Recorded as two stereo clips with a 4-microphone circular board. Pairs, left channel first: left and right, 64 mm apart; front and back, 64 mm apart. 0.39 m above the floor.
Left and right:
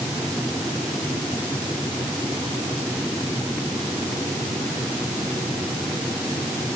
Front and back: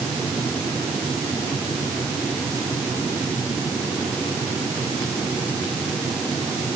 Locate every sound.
Only background noise.